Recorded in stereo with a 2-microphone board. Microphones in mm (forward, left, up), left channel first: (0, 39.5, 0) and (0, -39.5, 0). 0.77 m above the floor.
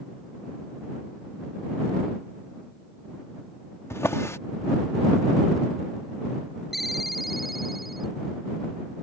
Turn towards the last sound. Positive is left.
turn(degrees=0)  # may be behind; listen again after turning